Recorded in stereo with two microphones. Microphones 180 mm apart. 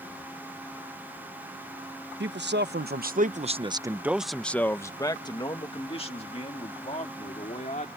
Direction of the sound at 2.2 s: 80° right.